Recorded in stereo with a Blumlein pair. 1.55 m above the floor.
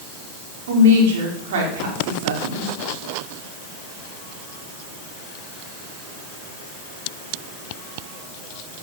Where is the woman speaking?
55° right, 5 m.